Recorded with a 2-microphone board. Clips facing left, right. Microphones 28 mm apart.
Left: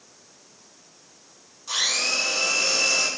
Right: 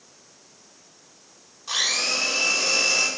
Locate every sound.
1.7 s a blender: 15° right (ahead or behind), 2 m